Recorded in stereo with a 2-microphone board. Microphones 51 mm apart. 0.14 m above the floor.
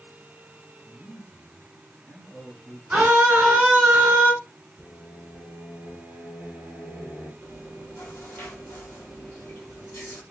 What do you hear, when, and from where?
0.8 s a man speaking: 40° left (ahead or behind), 3 m; by 2.8 s 15° left (ahead or behind), 1.9 m
2.9 s a scream: 25° right (ahead or behind), 2.0 m
4.8 s singing: 20° left (ahead or behind), 2 m
7.4 s chewing: 45° left (ahead or behind), 2 m